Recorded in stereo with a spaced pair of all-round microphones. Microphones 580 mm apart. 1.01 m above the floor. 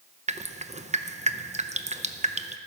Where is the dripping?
15° right (ahead or behind), 0.5 m.